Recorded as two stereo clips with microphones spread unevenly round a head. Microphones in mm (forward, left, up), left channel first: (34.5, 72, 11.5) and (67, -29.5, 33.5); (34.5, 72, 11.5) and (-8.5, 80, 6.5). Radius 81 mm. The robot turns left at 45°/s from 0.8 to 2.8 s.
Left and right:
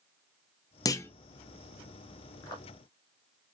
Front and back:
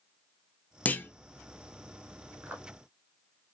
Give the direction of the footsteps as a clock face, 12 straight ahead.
6 o'clock.